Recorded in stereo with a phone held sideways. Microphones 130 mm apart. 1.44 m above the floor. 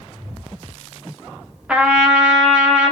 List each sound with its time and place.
1.7 s a trumpet: 10° right (ahead or behind), 0.6 m